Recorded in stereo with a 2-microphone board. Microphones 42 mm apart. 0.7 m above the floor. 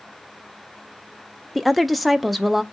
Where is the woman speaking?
Centre (ahead or behind), 0.6 m.